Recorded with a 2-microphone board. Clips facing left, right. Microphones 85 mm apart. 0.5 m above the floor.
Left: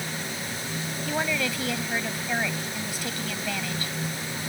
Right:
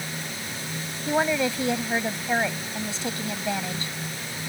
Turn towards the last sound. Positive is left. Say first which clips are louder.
# right 5 dB
turn(degrees=-25)  # may be behind; listen again after turning